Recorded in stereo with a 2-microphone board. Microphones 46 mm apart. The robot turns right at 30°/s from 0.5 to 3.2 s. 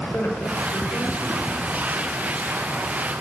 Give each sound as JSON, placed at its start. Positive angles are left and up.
{"t": 0.1, "sound": "a man speaking", "azimuth_deg": 50, "distance_m": 5.5}